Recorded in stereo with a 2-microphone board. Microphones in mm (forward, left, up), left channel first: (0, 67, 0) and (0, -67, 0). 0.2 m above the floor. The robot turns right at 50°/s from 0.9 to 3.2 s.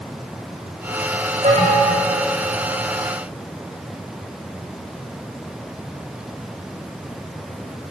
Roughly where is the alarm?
Right.